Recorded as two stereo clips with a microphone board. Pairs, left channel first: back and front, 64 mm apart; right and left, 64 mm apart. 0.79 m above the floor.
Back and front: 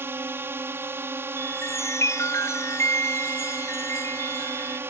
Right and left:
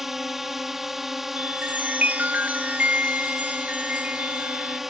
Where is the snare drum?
No snare drum in this recording.